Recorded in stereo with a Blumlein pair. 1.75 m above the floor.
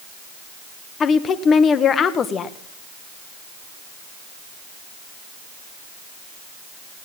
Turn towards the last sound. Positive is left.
turn(degrees=25)